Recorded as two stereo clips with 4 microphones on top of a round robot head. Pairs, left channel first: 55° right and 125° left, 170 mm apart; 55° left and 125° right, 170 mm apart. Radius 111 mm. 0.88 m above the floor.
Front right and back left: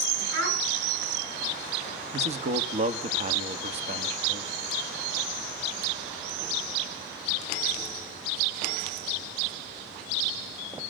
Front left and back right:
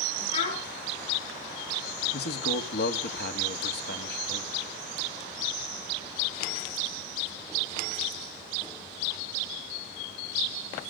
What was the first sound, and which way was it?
A child speaking, 115° left.